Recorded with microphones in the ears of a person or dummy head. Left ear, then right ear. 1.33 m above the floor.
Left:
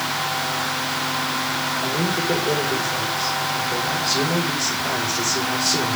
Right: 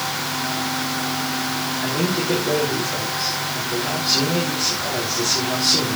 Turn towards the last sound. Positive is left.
turn(degrees=5)  # may be behind; listen again after turning